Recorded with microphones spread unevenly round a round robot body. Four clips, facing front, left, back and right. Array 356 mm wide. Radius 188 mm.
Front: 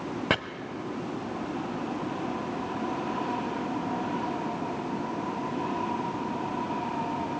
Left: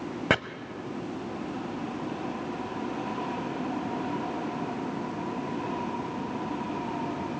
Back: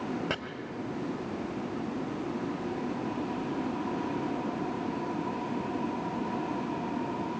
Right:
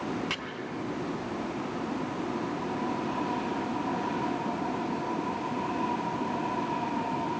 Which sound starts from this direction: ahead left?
Chopping, at 0.3 s.